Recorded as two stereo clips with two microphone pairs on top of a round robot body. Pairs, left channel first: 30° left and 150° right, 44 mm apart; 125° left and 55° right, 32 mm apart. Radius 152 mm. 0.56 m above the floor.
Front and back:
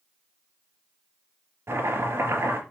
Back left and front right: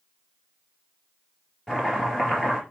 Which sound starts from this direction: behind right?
Chopping, at 1.7 s.